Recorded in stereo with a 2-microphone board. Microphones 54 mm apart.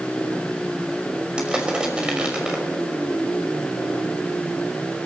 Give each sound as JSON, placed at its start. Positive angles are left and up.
{"t": 1.4, "sound": "crushing", "side_deg": -15, "distance_m": 5.5}